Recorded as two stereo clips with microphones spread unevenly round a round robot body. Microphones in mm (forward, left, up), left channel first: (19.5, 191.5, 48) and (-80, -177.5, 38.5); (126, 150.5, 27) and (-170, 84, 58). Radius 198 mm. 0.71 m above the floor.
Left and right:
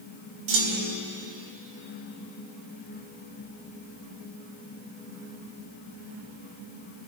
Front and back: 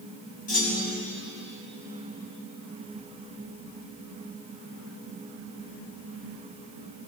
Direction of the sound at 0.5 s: 60° right.